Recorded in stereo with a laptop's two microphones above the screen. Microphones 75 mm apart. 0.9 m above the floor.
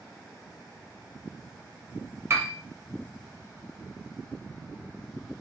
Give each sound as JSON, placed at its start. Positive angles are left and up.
{"t": 2.3, "sound": "a piano", "side_deg": -35, "distance_m": 0.8}